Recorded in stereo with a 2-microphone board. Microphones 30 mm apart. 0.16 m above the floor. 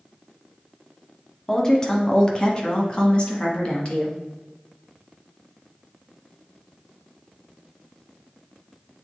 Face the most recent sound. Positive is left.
turn(degrees=40)  # may be behind; listen again after turning